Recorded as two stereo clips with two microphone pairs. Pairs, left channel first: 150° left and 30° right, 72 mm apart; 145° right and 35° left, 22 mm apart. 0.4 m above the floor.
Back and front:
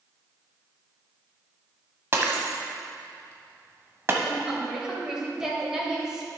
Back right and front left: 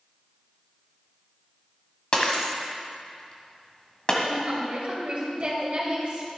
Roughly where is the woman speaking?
Ahead left.